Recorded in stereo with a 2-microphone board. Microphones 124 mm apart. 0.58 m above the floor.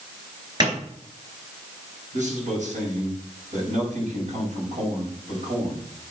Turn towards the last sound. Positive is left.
turn(degrees=-75)  # may be behind; listen again after turning